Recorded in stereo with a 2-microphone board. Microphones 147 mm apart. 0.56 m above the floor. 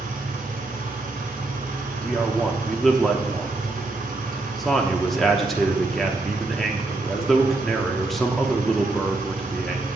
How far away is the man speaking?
About 0.8 m.